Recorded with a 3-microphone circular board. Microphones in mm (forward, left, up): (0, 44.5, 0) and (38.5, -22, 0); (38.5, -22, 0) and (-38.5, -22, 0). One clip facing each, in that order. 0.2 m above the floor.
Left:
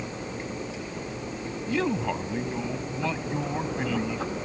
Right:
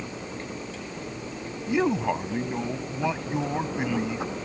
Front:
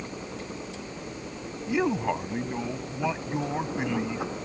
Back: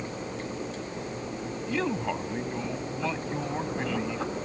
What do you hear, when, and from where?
1.7 s a man speaking: 40° right